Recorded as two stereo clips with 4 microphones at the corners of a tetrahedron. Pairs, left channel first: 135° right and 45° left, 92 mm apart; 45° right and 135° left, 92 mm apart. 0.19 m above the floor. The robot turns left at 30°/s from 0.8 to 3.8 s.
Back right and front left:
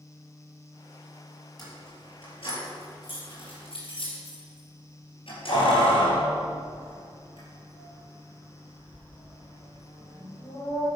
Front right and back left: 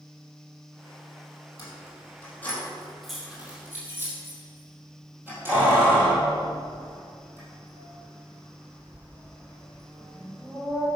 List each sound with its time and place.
1.6 s keys jangling: 90° right, 4 m; by 10.9 s 155° right, 4 m